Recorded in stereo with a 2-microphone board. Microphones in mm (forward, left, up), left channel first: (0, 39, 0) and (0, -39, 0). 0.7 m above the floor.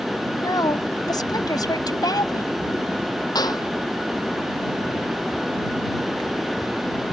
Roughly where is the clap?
Left.